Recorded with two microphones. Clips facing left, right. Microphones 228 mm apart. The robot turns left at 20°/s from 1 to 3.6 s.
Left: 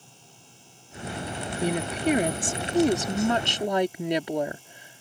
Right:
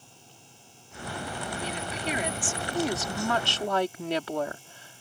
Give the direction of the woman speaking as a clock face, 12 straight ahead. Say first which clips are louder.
Left 12 dB; 10 o'clock.